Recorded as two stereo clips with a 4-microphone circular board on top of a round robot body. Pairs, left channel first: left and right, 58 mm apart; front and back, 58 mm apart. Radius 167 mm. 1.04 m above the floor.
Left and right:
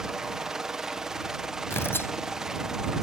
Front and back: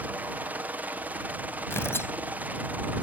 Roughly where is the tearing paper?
Ahead left.